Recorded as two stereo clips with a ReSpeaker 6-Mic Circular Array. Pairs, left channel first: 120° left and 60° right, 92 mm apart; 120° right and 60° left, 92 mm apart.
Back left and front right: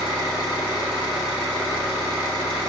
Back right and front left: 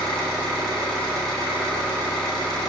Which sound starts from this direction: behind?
An engine running, at 0.0 s.